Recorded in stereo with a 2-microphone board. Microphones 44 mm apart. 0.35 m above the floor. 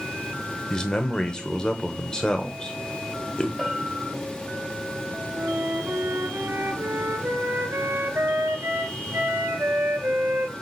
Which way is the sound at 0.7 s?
20° left (ahead or behind).